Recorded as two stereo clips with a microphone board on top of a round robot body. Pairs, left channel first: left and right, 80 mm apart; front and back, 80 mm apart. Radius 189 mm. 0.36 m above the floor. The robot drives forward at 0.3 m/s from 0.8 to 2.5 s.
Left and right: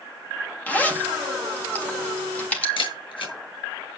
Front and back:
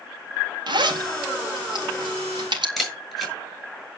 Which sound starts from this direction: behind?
A zipper, at 0.7 s.